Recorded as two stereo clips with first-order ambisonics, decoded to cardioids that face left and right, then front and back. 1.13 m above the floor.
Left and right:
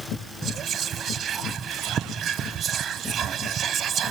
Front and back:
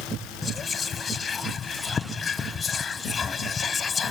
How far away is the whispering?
About 0.5 m.